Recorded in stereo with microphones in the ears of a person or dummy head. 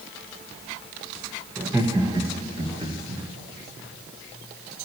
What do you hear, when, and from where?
1.6 s laughter: 10° right (ahead or behind), 1.3 m; by 3.2 s 35° right (ahead or behind), 3 m